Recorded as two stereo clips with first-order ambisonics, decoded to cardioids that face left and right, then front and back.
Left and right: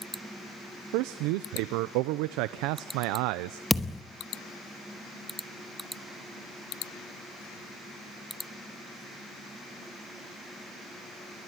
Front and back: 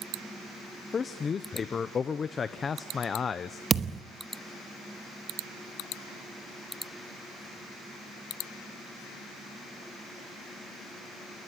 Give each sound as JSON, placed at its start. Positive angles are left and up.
{"t": 0.9, "sound": "a man speaking", "azimuth_deg": -70, "distance_m": 0.8}
{"t": 3.7, "sound": "a thud", "azimuth_deg": 165, "distance_m": 0.9}